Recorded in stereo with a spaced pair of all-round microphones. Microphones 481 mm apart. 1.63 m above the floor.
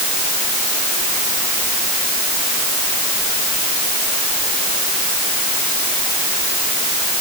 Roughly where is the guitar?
I don't hear a guitar.